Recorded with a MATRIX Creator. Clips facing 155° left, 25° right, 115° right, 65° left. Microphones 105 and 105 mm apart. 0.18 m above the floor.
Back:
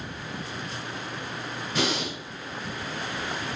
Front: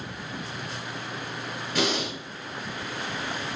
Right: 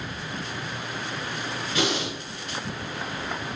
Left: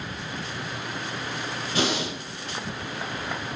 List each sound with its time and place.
1.8 s breathing: 75° left, 1.7 m